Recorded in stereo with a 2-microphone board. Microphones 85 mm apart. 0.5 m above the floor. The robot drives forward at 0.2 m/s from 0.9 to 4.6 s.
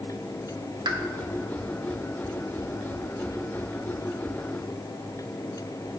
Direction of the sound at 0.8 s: 55° right (ahead or behind).